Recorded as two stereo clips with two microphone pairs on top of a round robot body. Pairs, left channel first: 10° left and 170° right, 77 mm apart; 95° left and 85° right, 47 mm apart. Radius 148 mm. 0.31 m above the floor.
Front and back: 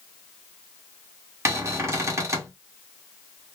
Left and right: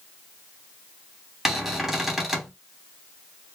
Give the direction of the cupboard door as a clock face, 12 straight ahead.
6 o'clock.